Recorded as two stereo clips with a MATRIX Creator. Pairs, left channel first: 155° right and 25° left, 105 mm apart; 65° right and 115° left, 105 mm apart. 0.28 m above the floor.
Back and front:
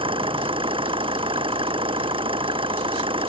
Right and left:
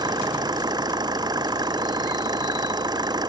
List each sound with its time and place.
0.0 s an engine running: 60° left